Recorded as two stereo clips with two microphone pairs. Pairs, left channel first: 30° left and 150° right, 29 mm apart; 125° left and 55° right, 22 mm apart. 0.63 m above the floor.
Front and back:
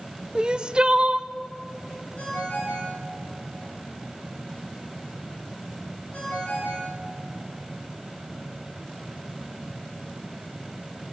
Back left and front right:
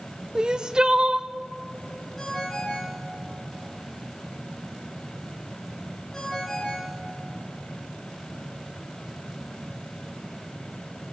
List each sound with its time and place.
0.3 s crying: 100° right, 0.7 m
2.2 s a ringtone: 60° left, 6.5 m